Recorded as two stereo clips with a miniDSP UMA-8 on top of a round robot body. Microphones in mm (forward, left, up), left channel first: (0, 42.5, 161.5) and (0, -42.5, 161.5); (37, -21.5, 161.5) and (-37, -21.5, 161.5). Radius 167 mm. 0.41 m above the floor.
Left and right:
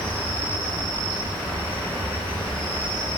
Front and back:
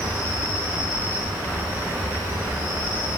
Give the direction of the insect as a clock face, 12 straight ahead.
8 o'clock.